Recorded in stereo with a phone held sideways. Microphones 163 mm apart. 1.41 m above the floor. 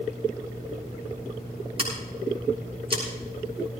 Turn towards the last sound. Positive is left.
turn(degrees=-40)  # may be behind; listen again after turning